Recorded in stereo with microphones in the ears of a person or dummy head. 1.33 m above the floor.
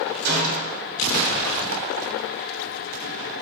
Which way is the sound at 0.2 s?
60° right (ahead or behind).